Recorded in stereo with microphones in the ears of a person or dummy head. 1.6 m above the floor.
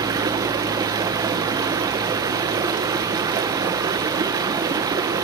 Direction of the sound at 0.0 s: 20° right (ahead or behind).